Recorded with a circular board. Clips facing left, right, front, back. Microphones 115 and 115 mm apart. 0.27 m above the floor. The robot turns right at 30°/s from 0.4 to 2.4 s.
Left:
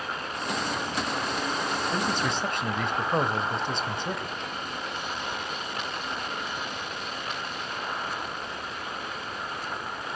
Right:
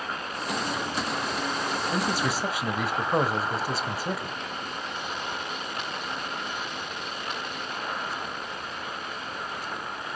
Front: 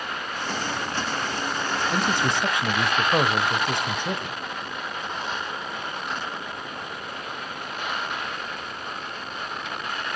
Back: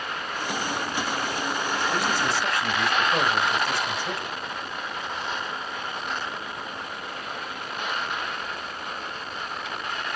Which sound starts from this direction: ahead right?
A man speaking, at 1.9 s.